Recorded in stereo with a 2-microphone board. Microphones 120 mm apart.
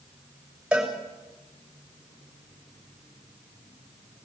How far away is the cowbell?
About 7 m.